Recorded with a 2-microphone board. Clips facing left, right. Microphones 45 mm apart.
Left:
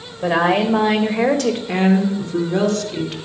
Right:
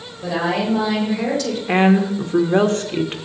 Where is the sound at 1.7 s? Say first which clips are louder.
Right 4 dB; 35° right (ahead or behind), 1.5 m.